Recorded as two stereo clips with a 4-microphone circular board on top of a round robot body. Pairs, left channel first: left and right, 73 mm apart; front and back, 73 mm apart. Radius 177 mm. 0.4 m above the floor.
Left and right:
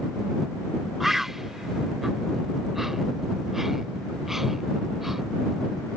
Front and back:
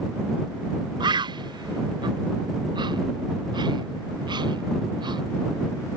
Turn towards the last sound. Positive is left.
turn(degrees=-175)